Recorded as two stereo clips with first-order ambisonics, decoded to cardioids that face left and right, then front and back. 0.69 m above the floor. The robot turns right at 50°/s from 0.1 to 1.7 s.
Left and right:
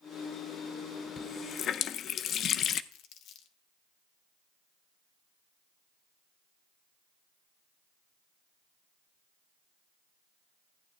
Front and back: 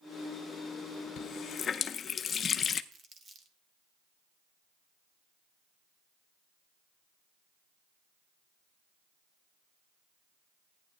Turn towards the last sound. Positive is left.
turn(degrees=120)